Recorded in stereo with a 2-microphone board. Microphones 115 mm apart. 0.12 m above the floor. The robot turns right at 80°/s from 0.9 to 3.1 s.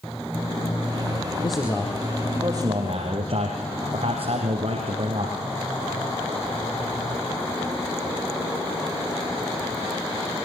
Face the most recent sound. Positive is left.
turn(degrees=-100)